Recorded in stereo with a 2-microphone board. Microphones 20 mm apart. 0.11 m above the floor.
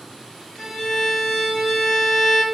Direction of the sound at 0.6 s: 20° left (ahead or behind).